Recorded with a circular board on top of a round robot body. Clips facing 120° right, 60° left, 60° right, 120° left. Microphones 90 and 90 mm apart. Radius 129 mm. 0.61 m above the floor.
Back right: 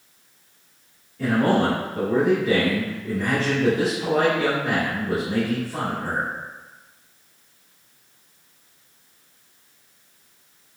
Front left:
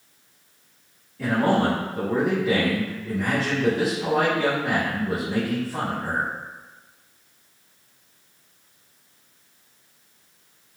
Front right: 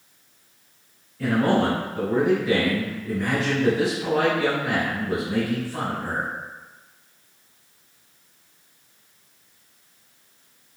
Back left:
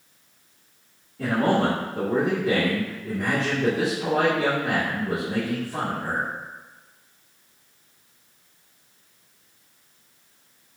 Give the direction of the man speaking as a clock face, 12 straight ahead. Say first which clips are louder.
Back right 1 dB, front right 1 dB; 7 o'clock.